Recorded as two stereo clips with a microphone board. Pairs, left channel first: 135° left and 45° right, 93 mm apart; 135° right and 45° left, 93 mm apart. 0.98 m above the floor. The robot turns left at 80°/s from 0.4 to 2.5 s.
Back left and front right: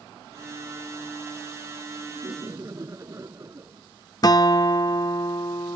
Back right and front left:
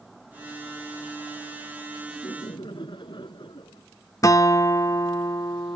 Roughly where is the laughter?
Right.